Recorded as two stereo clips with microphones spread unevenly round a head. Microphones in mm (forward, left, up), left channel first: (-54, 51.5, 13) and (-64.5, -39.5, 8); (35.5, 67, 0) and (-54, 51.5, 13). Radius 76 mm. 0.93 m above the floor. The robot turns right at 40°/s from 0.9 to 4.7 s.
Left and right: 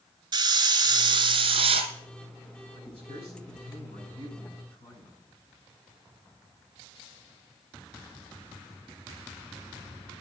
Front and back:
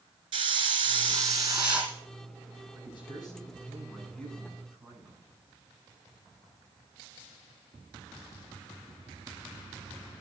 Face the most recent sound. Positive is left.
turn(degrees=110)